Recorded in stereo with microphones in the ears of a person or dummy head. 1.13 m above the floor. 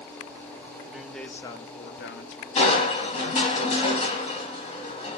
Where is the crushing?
35° left (ahead or behind), 2.5 m.